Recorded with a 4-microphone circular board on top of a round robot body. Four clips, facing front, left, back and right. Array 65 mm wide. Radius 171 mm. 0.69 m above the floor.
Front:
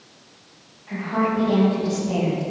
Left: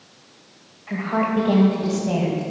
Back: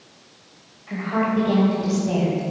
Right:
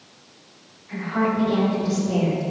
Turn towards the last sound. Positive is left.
turn(degrees=115)